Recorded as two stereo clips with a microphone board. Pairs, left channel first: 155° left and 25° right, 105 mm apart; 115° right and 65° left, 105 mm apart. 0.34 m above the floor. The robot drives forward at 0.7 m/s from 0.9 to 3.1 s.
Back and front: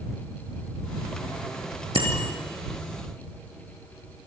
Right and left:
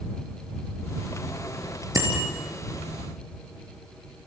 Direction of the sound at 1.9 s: 10° left.